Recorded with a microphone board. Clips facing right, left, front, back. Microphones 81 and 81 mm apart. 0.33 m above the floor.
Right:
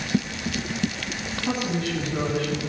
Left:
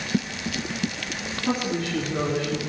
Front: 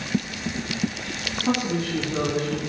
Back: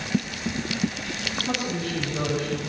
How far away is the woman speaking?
About 3.5 m.